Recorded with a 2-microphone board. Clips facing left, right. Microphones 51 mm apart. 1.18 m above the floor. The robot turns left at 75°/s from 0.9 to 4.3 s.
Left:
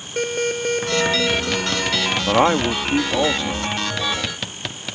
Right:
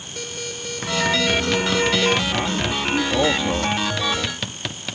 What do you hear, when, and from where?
0.2 s an alarm: 40° left; by 2.2 s 55° right
2.3 s a man speaking: 75° left; by 3.8 s 40° right